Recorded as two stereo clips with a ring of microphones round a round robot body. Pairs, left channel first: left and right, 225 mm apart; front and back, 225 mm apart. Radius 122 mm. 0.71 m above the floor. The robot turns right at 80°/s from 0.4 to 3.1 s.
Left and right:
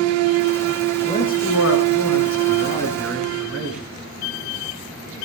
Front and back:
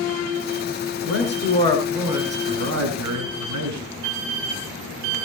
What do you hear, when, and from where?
1.0 s a man speaking: 20° left, 8 m; by 3.8 s 175° right, 8 m